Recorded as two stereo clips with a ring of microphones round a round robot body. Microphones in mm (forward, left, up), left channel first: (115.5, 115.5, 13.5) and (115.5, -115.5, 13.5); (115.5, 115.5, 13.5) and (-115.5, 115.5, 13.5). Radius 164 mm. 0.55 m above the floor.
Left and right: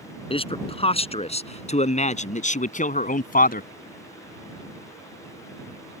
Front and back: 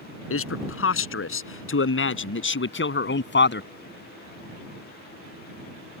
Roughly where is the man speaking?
Ahead left.